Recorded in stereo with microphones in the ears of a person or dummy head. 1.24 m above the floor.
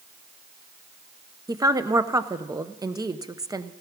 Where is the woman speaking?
10° right (ahead or behind), 0.5 m.